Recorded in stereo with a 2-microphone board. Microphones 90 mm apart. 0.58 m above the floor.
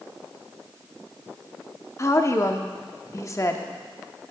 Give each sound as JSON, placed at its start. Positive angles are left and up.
{"t": 2.0, "sound": "a woman speaking", "side_deg": 35, "distance_m": 0.9}